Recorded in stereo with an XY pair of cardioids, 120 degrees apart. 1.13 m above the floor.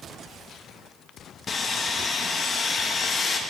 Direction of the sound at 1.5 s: 30° left.